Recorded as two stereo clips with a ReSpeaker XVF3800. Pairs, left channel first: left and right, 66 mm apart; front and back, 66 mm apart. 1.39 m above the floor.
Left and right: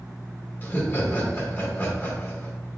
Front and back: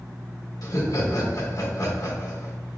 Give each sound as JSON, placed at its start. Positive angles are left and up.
{"t": 0.6, "sound": "laughter", "azimuth_deg": 30, "distance_m": 1.6}